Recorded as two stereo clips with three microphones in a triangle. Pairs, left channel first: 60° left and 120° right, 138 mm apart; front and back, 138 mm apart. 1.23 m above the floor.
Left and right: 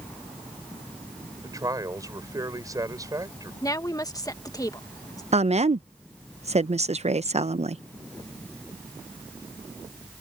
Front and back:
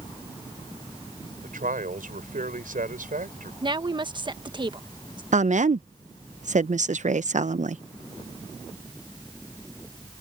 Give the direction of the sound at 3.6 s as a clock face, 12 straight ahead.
8 o'clock.